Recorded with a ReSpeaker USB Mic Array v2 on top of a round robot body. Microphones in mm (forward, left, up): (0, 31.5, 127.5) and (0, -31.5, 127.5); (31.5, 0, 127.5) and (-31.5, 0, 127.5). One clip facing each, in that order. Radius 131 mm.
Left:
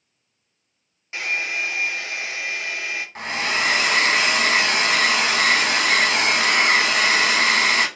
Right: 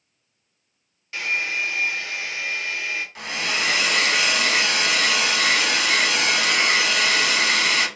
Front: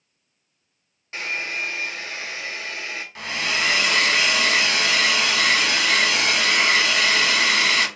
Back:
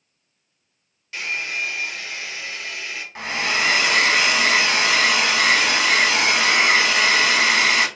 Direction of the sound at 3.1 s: 125° left.